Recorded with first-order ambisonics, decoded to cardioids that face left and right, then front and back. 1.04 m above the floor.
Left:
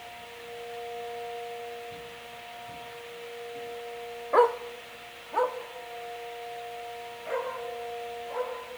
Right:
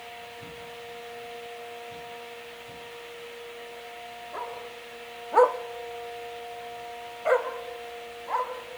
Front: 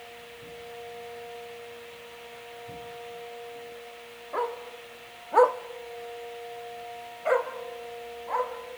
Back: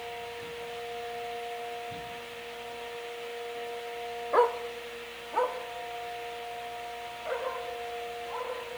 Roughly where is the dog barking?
Behind left.